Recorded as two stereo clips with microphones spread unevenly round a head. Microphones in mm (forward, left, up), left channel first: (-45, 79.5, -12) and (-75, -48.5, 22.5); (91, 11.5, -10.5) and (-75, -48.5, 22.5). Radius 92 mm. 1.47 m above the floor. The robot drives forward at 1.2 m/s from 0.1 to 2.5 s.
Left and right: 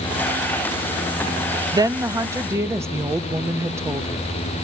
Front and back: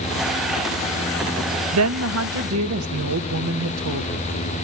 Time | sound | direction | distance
1.7 | a woman speaking | 170° right | 0.7 m